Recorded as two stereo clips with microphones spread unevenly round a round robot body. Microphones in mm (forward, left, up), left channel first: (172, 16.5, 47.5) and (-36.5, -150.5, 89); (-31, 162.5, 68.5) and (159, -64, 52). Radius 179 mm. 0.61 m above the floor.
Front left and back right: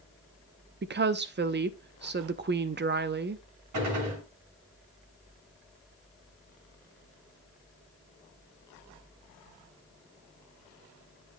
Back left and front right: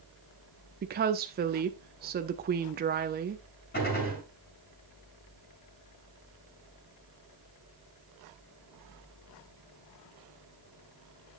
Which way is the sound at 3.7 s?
165° right.